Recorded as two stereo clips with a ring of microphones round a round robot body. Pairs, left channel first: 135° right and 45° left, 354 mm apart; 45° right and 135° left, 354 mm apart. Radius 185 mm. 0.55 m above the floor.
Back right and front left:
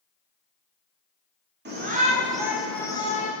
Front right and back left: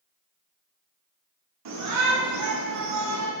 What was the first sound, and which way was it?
A shout, 100° left.